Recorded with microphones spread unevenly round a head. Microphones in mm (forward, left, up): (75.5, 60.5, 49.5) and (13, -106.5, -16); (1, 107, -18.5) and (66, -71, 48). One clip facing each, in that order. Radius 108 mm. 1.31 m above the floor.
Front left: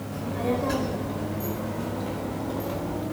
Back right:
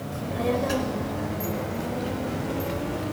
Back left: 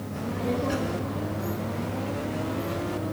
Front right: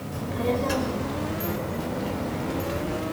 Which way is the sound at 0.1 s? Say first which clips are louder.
Back right 1 dB, front right 2 dB; 55° right.